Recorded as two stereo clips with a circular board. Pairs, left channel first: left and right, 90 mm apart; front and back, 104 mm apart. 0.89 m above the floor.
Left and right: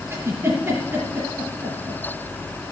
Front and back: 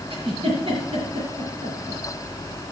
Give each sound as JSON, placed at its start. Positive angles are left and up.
{"t": 0.1, "sound": "a giggle", "azimuth_deg": -150, "distance_m": 5.0}